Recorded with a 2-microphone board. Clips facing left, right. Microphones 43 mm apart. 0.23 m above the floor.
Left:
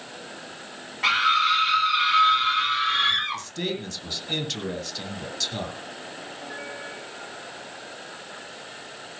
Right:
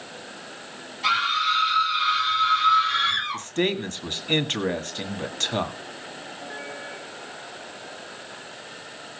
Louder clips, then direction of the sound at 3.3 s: Right 5 dB; 40° right (ahead or behind).